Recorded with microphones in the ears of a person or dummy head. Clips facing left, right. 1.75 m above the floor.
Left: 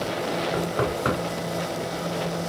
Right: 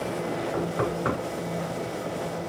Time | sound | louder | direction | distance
0.5 | knocking | left 2 dB | 45° left (ahead or behind) | 4.5 m